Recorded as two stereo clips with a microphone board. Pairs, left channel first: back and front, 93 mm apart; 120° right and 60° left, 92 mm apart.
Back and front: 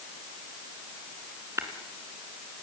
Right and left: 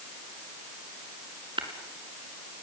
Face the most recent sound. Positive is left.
turn(degrees=55)